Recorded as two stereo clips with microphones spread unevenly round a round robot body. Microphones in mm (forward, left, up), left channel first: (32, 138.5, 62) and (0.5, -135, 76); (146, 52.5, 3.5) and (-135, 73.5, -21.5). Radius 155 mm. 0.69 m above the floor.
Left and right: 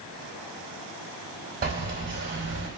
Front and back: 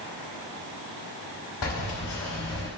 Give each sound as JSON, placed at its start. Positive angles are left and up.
{"t": 1.6, "sound": "keys jangling", "azimuth_deg": -35, "distance_m": 3.0}